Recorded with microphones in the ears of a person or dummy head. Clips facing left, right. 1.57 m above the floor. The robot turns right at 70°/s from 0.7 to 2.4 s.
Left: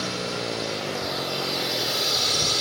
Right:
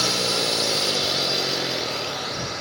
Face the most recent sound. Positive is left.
turn(degrees=55)  # may be behind; listen again after turning